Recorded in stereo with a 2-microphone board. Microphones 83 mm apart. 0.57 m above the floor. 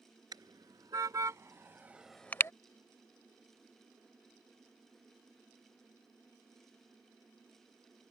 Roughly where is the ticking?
No ticking in this recording.